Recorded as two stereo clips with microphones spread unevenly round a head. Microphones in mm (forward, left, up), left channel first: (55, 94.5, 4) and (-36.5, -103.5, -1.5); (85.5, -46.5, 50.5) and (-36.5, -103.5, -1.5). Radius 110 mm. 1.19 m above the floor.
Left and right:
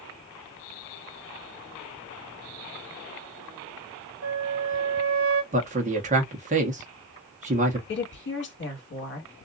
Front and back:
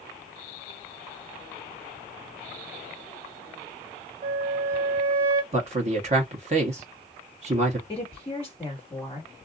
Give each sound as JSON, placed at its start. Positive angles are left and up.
{"t": 4.2, "sound": "a flute", "azimuth_deg": -130, "distance_m": 1.4}
{"t": 5.5, "sound": "a man speaking", "azimuth_deg": -170, "distance_m": 1.1}
{"t": 7.9, "sound": "a woman speaking", "azimuth_deg": 105, "distance_m": 1.6}